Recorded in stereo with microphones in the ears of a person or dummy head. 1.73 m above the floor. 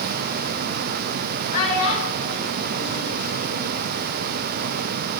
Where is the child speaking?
35° left (ahead or behind), 1.7 m; by 3.8 s 40° left (ahead or behind), 3.5 m.